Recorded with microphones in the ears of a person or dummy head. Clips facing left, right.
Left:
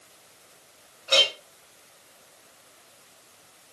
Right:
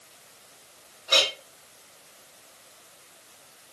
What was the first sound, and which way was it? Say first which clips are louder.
A clink: left 2 dB; 35° left (ahead or behind).